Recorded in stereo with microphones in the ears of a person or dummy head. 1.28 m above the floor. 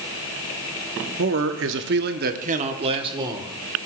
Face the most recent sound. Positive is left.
turn(degrees=-25)  # may be behind; listen again after turning